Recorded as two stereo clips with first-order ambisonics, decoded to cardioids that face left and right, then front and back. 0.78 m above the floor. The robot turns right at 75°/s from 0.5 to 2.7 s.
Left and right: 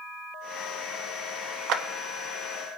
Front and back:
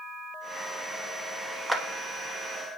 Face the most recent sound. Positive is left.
turn(degrees=-25)